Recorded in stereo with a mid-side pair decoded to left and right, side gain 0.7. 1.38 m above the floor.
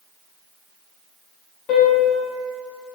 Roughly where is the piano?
Ahead left.